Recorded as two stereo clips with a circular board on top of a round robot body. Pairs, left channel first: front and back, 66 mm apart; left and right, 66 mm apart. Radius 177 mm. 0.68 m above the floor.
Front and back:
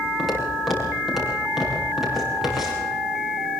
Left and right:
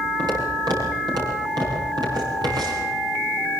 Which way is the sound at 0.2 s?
90° right.